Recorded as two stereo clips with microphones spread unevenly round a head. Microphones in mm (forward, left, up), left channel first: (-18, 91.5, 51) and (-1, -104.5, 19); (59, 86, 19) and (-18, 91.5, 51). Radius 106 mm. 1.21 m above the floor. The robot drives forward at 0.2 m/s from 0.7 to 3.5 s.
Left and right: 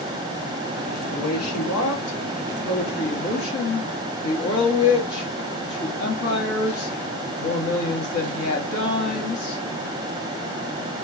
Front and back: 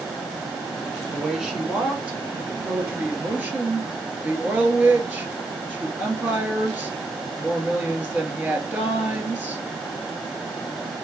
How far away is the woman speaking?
About 1.6 m.